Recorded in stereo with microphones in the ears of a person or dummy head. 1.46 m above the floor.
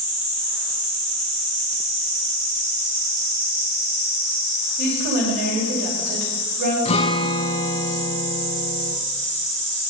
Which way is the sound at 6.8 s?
35° left (ahead or behind).